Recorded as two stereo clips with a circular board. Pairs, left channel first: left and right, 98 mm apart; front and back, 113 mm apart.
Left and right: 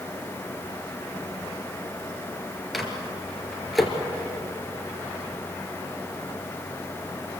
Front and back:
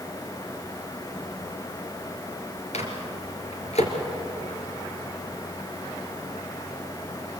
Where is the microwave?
Straight ahead, 3 m.